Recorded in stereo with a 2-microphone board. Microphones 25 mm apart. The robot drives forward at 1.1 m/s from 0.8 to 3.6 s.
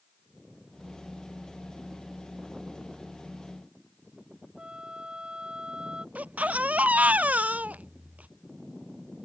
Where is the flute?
35° right (ahead or behind).